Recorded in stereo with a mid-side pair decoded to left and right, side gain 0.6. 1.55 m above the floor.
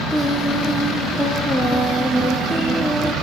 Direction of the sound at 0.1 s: Straight ahead.